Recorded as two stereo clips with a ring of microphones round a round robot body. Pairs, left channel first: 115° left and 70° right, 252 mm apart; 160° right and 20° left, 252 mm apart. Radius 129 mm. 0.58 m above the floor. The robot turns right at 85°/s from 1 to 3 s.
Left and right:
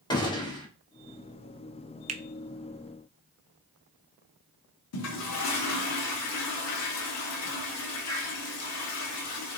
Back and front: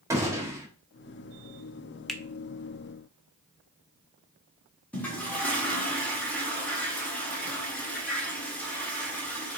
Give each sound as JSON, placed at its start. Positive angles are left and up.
{"t": 0.1, "sound": "a gunshot", "azimuth_deg": 80, "distance_m": 1.2}
{"t": 2.1, "sound": "a finger snap", "azimuth_deg": -70, "distance_m": 0.5}
{"t": 4.9, "sound": "a toilet flushing", "azimuth_deg": 120, "distance_m": 1.1}